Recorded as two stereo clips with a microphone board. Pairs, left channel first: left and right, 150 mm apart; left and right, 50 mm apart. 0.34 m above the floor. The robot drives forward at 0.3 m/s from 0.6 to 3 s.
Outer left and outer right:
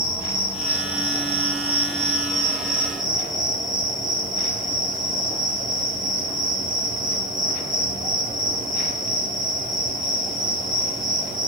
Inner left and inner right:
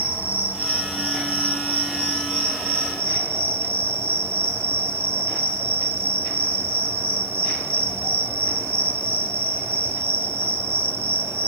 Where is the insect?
35° right (ahead or behind), 1.2 m; by 11.5 s 60° right (ahead or behind), 0.8 m.